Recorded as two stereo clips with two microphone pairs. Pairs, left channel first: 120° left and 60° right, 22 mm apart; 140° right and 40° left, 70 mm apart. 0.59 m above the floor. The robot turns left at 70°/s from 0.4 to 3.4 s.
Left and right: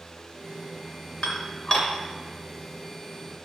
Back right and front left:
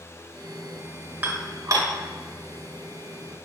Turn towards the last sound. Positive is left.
turn(degrees=-50)